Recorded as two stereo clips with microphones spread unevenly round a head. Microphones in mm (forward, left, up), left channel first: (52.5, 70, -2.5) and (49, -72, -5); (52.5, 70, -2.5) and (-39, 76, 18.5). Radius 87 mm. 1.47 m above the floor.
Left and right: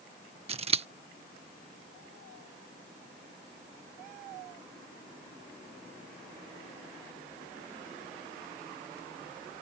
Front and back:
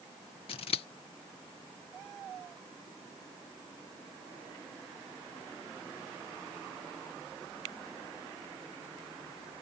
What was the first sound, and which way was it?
Scissors, 45° right.